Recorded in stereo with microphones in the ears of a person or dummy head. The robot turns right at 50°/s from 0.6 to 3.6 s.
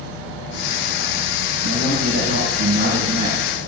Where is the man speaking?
100° right, 4.5 m; by 3.5 s 10° right, 4.5 m.